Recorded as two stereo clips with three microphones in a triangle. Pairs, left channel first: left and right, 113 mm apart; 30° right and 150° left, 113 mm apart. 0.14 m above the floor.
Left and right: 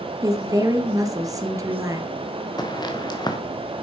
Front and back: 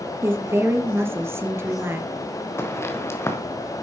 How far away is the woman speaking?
About 2.5 m.